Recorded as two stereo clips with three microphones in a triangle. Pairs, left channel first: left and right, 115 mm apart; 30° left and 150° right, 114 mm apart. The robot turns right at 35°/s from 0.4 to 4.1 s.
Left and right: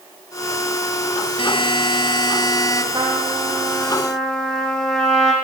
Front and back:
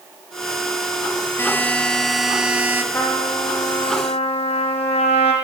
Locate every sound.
1.4 s a buzzer: 95° left, 1.5 m; by 2.8 s 145° left, 1.5 m
2.9 s a trumpet: 35° right, 4.5 m; by 5.3 s 5° left, 4.5 m